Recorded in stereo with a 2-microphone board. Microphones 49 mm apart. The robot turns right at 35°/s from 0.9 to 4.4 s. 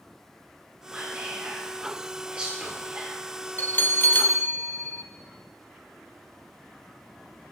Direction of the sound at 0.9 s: 20° right (ahead or behind).